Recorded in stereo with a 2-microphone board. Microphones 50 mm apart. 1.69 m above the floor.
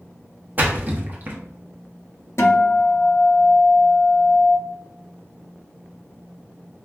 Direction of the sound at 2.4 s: 60° left (ahead or behind).